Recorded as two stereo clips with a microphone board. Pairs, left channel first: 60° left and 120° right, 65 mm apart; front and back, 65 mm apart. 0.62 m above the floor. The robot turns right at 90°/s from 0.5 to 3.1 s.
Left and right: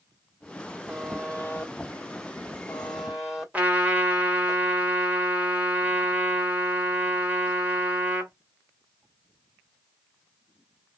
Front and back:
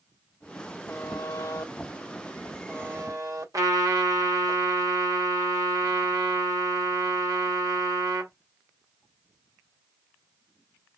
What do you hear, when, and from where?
0.9 s a buzzer: 40° right, 1.6 m; by 4.5 s 160° left, 1.6 m
3.5 s a trumpet: 175° left, 1.8 m